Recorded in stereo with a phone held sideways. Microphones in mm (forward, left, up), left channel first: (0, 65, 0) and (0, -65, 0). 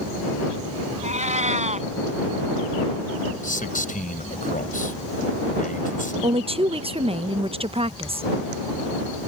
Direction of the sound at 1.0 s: 60° right (ahead or behind).